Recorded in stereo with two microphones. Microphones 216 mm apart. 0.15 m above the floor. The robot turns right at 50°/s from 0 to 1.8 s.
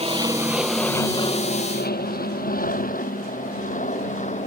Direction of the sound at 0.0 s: 30° right (ahead or behind).